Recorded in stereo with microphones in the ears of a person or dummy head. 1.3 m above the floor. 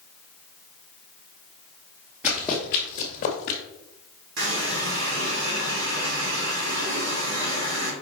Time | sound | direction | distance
2.2 | running footsteps | 5° right (ahead or behind) | 1.4 m
4.4 | a running tap | 75° right (ahead or behind) | 2 m